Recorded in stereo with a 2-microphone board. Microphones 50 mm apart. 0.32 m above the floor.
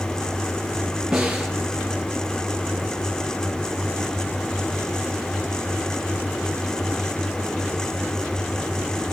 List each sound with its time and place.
1.1 s a snare drum: 10° right (ahead or behind), 2.5 m